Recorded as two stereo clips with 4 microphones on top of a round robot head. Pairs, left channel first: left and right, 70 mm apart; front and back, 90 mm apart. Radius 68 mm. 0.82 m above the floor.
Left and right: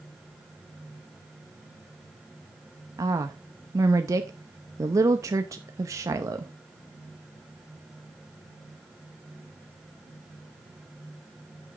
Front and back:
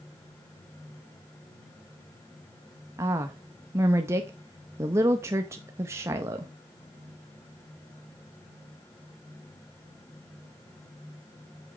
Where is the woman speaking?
125° right, 0.7 m.